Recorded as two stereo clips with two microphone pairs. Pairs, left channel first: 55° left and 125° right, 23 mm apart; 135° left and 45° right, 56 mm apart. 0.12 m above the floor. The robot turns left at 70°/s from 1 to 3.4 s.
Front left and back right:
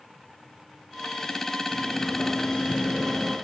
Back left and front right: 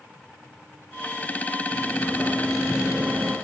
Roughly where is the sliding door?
Left.